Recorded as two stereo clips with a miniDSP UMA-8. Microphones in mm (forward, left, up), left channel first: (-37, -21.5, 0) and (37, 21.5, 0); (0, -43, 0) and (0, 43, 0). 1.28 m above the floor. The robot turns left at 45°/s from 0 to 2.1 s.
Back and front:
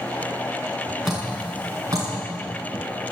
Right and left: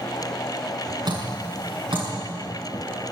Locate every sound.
1.1 s dripping: 120° left, 5.5 m; by 2.1 s 75° left, 5.5 m